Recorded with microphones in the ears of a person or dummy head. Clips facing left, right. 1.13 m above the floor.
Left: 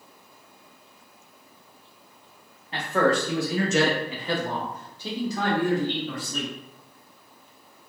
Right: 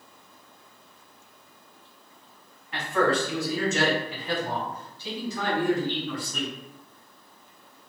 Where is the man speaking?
25° left (ahead or behind), 0.9 m.